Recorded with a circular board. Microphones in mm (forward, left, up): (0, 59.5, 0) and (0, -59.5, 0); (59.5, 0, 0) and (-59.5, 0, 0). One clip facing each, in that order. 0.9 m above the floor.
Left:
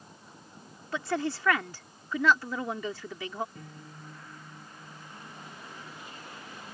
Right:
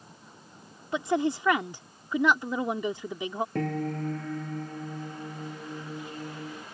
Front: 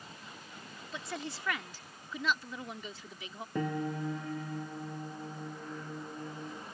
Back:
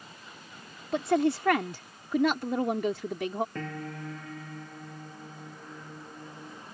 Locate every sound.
0.9 s a woman speaking: 160° right
3.5 s a piano: 75° right